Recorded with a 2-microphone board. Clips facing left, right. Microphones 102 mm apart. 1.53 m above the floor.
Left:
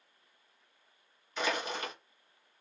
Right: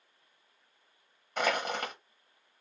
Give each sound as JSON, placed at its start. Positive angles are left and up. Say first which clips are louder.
{"t": 1.4, "sound": "crushing", "louder": "right 3 dB", "side_deg": -55, "distance_m": 1.0}